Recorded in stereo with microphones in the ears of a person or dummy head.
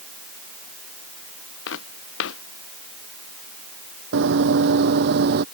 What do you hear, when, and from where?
1.7 s footsteps: 70° left (ahead or behind)
4.1 s running footsteps: 60° right (ahead or behind); by 5.5 s 55° right (ahead or behind)